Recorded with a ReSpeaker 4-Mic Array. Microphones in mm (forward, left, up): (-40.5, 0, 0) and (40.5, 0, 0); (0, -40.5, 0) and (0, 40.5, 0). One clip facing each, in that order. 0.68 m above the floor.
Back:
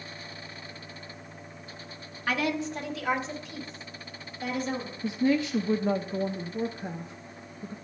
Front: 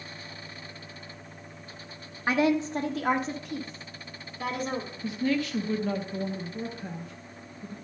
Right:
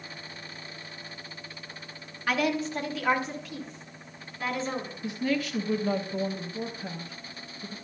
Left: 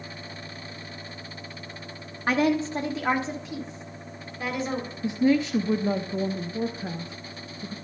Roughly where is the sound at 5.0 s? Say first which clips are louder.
Back 3 dB, left 8 dB; behind left.